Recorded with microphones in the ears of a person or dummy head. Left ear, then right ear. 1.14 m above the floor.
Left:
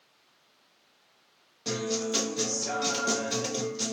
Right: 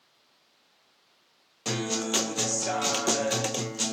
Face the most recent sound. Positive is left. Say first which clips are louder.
# right 1 dB
turn(degrees=-40)  # may be behind; listen again after turning